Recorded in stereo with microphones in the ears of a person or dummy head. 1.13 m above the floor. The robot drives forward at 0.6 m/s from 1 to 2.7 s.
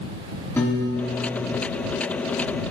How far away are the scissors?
I don't hear scissors.